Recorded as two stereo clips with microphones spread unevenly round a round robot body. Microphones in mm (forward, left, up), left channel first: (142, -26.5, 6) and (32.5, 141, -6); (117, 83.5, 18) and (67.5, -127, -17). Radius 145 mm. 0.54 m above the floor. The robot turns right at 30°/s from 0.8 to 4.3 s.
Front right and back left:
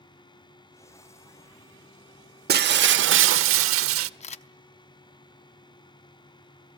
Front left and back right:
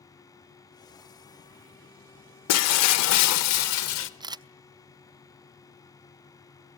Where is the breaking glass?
80° left, 0.7 m; by 4.1 s 130° left, 0.7 m.